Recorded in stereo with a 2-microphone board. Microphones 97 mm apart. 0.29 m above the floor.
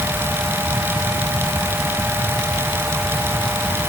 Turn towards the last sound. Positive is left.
No sound to turn to.